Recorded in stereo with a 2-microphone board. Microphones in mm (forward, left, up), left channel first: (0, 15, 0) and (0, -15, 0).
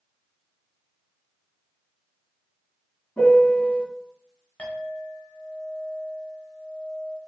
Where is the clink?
50° left (ahead or behind), 1.0 m.